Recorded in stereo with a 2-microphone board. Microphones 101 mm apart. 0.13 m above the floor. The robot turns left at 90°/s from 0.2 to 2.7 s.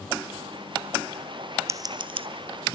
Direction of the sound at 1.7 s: 30° right (ahead or behind).